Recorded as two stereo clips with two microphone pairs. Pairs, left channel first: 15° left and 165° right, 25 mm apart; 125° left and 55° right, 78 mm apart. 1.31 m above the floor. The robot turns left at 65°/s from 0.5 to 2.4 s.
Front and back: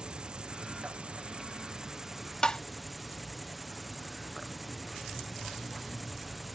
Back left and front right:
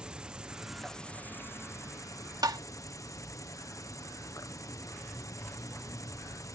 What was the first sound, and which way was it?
An insect, 125° right.